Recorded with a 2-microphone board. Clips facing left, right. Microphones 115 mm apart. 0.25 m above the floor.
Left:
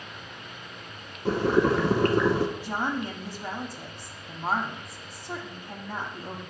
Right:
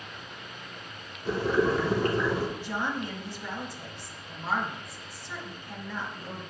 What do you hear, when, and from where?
1.2 s boiling: 70° left (ahead or behind), 0.9 m
2.6 s a woman speaking: 45° left (ahead or behind), 1.4 m